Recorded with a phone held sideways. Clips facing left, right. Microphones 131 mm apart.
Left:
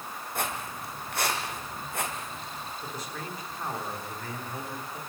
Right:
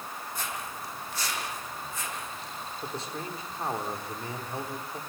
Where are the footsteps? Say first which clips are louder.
Left 5 dB; 65° left (ahead or behind), 3.5 m; by 2.7 s 70° left (ahead or behind), 5 m.